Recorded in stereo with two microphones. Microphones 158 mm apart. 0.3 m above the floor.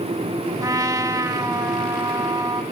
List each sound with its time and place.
0.6 s a trumpet: 20° right (ahead or behind), 0.7 m